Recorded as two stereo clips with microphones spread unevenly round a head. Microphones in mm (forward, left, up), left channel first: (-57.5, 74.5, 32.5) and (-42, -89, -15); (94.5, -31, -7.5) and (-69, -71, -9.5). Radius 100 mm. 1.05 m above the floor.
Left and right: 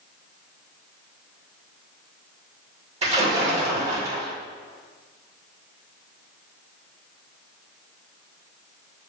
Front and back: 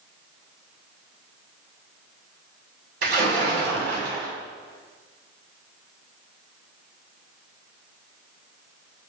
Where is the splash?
135° right, 1.9 m.